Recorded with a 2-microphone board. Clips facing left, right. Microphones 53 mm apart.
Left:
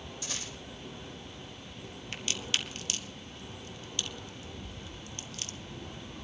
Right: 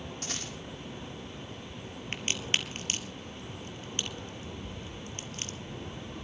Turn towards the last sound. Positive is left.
turn(degrees=-35)  # may be behind; listen again after turning